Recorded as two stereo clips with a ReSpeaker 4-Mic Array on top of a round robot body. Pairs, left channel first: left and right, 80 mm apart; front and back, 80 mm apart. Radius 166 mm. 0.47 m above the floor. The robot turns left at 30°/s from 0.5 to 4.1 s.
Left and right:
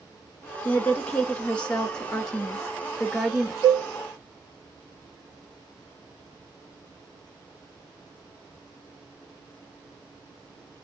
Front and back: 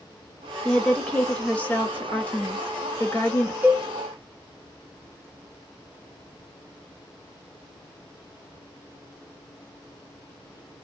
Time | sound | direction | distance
0.7 | a woman speaking | 70° left | 1.2 m
3.6 | a cowbell | 110° right | 1.0 m